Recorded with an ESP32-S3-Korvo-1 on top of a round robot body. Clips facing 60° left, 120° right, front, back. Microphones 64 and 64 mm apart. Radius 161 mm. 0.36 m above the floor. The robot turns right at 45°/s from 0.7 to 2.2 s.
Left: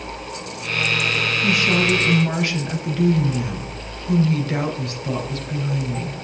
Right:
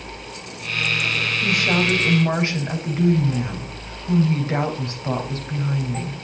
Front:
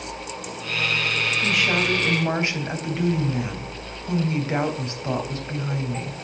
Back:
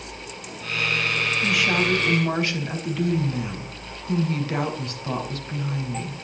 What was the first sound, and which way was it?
A woman speaking, 95° right.